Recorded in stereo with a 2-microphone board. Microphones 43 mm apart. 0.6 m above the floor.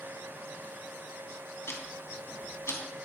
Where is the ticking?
80° left, 3.5 m.